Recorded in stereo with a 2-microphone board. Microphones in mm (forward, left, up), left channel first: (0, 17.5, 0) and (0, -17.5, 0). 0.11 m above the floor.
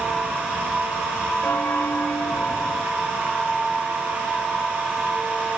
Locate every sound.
1.4 s a bell: 85° left